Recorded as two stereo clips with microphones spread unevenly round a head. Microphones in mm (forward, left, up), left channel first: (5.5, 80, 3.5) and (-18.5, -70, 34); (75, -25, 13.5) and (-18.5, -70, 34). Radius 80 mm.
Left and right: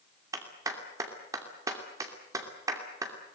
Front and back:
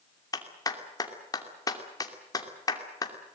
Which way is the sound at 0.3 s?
30° right.